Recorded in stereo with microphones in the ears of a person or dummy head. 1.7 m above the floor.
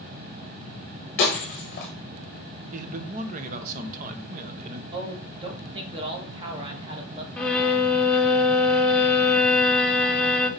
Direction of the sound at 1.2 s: 25° left (ahead or behind).